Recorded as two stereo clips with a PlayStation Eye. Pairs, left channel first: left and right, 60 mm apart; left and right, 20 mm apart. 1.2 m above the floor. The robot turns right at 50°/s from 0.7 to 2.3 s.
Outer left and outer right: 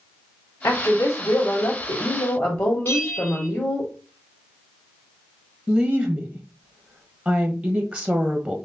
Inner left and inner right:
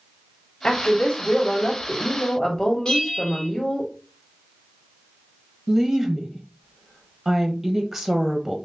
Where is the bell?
35° left (ahead or behind), 1.7 m.